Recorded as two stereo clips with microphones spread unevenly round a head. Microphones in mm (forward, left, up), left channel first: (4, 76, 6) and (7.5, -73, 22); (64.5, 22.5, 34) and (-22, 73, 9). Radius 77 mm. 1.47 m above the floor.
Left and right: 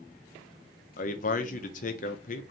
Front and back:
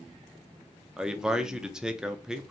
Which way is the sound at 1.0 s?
60° left.